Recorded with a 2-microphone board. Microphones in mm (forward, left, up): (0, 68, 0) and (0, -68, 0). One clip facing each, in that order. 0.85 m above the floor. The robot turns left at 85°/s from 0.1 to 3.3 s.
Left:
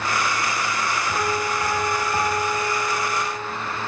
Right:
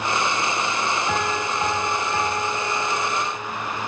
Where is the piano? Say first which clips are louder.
Even; 105° right, 4.5 m; by 3.5 s 65° left, 4.5 m.